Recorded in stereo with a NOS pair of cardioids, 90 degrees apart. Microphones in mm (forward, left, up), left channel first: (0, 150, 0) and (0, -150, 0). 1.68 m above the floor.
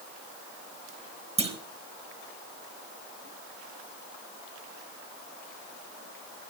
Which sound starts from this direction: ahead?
A clunk, at 1.4 s.